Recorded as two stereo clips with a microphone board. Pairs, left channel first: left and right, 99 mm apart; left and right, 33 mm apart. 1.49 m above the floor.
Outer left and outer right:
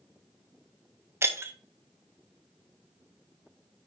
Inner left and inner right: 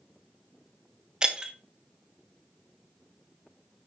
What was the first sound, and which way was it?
Breaking glass, 25° right (ahead or behind).